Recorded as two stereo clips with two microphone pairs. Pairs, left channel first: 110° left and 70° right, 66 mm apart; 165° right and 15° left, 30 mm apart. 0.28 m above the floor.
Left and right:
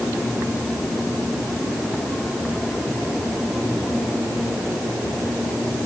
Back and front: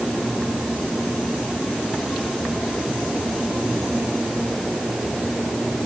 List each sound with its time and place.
Only background noise.